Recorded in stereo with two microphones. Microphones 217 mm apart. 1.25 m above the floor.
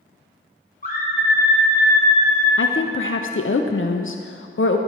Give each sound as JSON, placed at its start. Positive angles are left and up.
{"t": 0.8, "sound": "a scream", "side_deg": 35, "distance_m": 1.2}
{"t": 2.6, "sound": "a woman speaking", "side_deg": 65, "distance_m": 0.5}